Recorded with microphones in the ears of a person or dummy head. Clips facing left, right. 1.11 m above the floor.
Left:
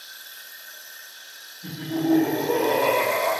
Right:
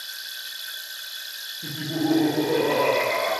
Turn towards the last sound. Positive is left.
turn(degrees=0)  # may be behind; listen again after turning